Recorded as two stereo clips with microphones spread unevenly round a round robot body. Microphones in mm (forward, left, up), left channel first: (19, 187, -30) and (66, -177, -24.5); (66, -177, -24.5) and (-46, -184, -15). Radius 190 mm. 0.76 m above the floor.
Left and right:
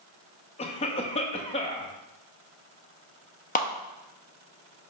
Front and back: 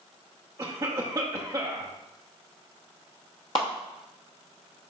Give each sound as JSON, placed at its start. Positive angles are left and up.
{"t": 0.6, "sound": "a cough", "azimuth_deg": 150, "distance_m": 0.5}
{"t": 3.5, "sound": "a clap", "azimuth_deg": 35, "distance_m": 0.8}